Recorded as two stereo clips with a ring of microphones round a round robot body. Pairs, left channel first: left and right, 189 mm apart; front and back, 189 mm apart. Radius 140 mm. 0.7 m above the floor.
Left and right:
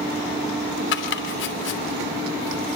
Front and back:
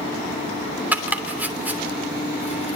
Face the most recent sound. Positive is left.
turn(degrees=100)